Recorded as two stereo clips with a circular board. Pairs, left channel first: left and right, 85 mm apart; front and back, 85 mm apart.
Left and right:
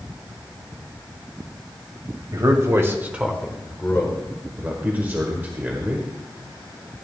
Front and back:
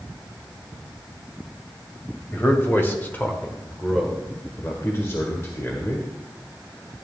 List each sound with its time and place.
2.3 s a man speaking: 60° right, 2.5 m; by 4.2 s 90° left, 1.7 m
4.6 s a man speaking: 35° right, 1.5 m